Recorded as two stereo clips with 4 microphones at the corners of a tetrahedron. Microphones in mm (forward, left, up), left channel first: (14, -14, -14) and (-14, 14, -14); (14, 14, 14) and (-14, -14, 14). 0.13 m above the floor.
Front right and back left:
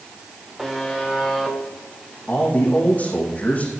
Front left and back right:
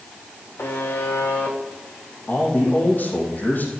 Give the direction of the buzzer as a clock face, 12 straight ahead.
10 o'clock.